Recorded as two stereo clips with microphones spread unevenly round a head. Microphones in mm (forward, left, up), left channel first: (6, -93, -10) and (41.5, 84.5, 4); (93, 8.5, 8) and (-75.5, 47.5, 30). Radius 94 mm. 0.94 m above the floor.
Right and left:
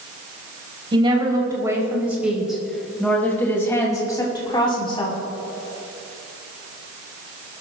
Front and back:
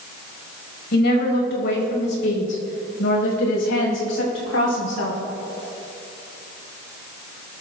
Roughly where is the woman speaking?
Ahead.